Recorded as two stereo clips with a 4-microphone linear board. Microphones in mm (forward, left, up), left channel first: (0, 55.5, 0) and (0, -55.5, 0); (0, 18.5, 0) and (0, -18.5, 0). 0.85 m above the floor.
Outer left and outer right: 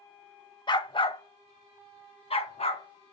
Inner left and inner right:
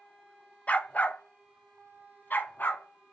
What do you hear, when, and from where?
0.7 s a dog barking: 45° left (ahead or behind), 0.8 m; by 3.1 s 65° left (ahead or behind), 1.9 m